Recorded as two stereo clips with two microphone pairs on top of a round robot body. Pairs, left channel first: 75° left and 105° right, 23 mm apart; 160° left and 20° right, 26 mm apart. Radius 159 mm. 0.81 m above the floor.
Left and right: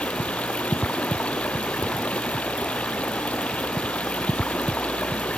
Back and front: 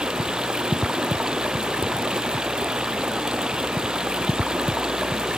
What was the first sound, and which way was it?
Running water, 40° left.